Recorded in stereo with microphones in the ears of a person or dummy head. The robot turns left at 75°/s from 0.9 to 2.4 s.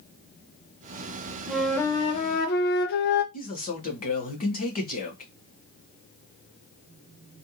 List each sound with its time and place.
1.5 s a flute: 175° right, 0.6 m; by 3.2 s 115° left, 0.6 m
3.3 s a man speaking: 45° left (ahead or behind), 1.2 m